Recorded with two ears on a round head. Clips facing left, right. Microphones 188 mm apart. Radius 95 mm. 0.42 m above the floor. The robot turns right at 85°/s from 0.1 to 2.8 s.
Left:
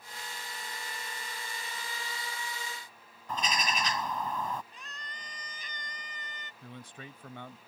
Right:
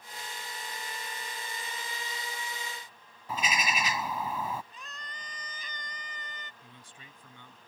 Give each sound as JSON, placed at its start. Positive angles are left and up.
{"t": 3.3, "sound": "a bird", "side_deg": -5}
{"t": 4.7, "sound": "a scream", "side_deg": -80}
{"t": 6.6, "sound": "a man speaking", "side_deg": 50}